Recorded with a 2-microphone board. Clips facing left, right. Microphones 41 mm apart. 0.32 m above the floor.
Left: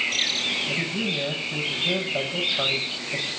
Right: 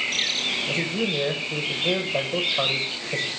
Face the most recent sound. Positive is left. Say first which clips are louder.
# right 1 dB
turn(degrees=-65)  # may be behind; listen again after turning